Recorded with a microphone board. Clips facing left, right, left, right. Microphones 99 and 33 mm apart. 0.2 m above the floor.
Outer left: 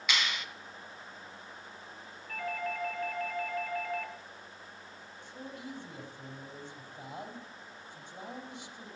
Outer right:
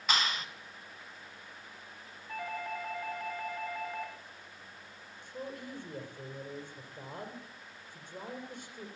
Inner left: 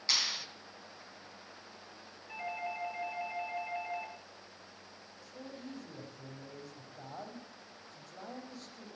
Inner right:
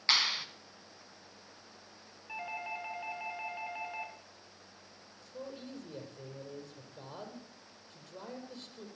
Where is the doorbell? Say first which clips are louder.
Outer left 2 dB, even; 25° right (ahead or behind), 3 m.